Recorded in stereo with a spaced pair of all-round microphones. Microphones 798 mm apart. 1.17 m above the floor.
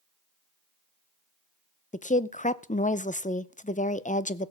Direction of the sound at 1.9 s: 10° left (ahead or behind).